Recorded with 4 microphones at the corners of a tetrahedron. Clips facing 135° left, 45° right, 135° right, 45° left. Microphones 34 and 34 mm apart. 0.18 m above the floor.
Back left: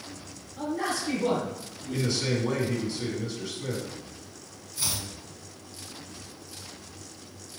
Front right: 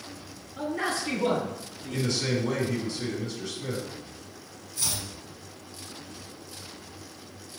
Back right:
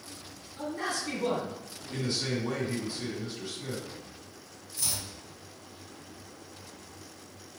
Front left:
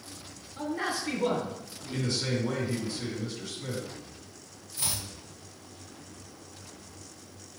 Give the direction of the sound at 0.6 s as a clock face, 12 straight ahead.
1 o'clock.